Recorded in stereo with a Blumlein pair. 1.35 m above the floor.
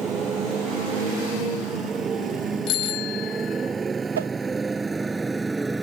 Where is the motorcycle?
25° right; by 5.8 s 10° right.